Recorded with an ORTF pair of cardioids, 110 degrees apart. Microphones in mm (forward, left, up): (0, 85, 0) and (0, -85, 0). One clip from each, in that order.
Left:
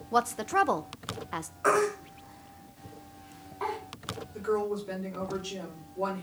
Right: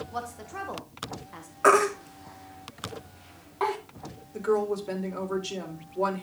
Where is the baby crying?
45° right, 2.5 m.